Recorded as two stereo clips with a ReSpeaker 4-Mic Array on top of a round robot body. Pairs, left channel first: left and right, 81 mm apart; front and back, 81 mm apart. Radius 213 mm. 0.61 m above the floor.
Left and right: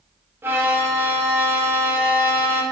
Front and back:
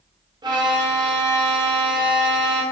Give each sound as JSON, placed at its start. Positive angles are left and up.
{"t": 0.4, "sound": "a violin", "azimuth_deg": -155, "distance_m": 0.7}